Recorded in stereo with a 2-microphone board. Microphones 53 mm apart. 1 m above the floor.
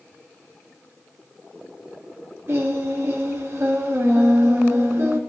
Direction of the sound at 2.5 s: 50° right (ahead or behind).